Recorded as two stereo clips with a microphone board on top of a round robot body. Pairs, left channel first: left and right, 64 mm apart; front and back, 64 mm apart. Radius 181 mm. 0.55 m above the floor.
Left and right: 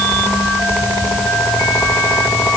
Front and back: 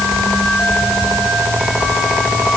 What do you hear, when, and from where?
Only background noise.